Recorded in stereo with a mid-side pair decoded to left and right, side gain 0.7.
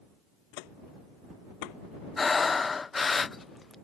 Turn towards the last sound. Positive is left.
turn(degrees=20)